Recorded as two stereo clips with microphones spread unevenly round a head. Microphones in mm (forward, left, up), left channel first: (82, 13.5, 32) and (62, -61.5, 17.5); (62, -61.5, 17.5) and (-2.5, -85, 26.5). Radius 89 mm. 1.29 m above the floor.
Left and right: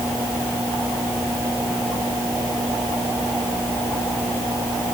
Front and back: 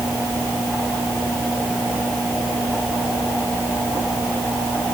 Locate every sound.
Only background noise.